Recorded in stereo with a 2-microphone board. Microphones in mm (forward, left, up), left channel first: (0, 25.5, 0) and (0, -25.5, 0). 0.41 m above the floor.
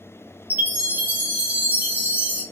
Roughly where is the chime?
Right.